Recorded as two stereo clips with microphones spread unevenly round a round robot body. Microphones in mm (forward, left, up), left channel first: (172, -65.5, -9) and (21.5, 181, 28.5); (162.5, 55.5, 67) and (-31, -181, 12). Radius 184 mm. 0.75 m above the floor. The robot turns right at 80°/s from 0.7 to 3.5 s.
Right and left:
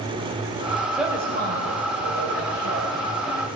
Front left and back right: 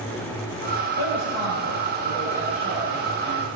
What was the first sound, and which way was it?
A woman speaking, 35° left.